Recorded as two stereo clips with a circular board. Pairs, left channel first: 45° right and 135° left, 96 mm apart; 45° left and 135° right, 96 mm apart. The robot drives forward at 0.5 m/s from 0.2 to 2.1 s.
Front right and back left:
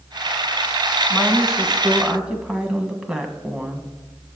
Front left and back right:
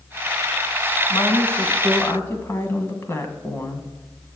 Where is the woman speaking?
35° left, 1.4 m; by 3.9 s 65° left, 1.2 m.